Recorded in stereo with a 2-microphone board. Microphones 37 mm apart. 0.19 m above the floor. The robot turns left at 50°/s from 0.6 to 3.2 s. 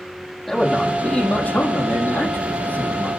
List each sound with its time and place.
0.5 s a man speaking: 175° left, 6 m; by 3.1 s 50° left, 6 m